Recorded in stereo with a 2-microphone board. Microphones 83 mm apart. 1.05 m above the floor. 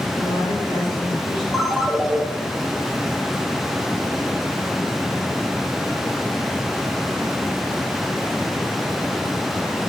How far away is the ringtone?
About 1.1 m.